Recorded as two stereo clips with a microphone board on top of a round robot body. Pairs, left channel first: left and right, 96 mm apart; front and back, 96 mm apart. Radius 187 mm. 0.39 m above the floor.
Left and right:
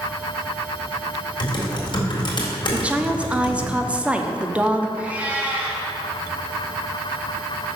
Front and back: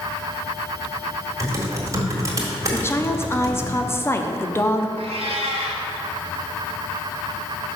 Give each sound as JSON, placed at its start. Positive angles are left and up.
{"t": 1.4, "sound": "typing on a keyboard", "azimuth_deg": 125, "distance_m": 1.6}
{"t": 2.7, "sound": "a woman speaking", "azimuth_deg": -25, "distance_m": 0.8}
{"t": 5.0, "sound": "a cat meowing", "azimuth_deg": -165, "distance_m": 1.0}